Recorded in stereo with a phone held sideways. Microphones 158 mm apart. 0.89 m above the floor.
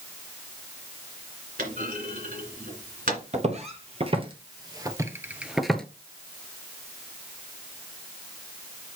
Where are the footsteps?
50° right (ahead or behind), 1.4 m; by 5.8 s 5° left (ahead or behind), 0.8 m.